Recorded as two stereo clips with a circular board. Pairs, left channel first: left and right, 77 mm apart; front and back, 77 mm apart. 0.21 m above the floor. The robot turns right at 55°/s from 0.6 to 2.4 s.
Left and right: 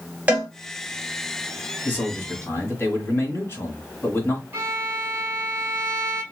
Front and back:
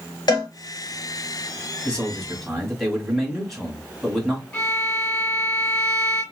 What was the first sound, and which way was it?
A cowbell, 20° right.